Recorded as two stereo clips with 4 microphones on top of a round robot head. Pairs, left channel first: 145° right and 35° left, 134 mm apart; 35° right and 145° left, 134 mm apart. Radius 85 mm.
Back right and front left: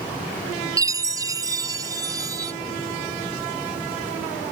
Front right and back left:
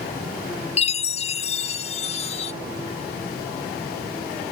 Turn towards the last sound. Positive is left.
turn(degrees=-20)